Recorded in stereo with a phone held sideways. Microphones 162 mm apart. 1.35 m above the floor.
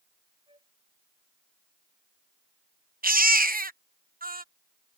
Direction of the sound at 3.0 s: 65° right (ahead or behind).